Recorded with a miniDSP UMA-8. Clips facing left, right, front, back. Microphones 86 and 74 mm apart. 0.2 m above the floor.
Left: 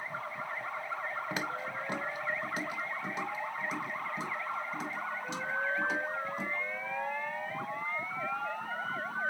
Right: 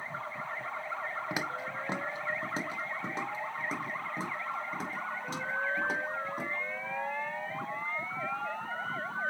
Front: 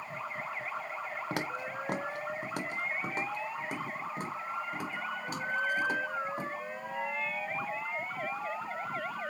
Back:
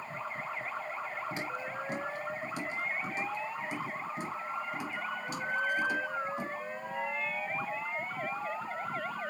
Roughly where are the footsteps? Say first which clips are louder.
Even, front 1 dB; ahead.